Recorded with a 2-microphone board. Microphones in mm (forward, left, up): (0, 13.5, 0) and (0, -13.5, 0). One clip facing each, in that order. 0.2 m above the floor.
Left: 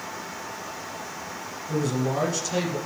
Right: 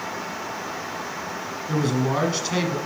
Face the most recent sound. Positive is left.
turn(degrees=-45)  # may be behind; listen again after turning